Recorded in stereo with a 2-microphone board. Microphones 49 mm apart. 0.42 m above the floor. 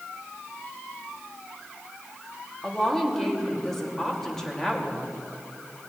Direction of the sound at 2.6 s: 10° left (ahead or behind).